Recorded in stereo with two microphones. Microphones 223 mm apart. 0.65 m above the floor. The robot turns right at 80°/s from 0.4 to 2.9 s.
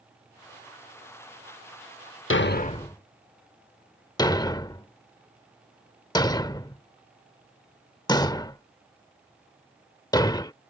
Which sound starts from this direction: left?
A thud, at 2.3 s.